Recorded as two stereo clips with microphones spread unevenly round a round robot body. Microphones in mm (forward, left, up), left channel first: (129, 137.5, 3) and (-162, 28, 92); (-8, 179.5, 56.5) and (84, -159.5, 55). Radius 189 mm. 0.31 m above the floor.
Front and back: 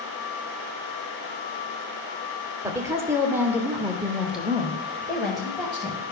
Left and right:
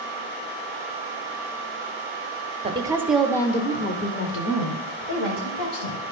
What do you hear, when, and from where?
2.6 s a woman speaking: 45° right, 0.9 m; by 6.0 s 95° left, 1.7 m